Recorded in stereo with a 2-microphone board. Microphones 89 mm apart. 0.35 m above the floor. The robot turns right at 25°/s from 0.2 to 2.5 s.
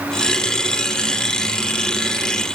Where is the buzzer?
No buzzer in this recording.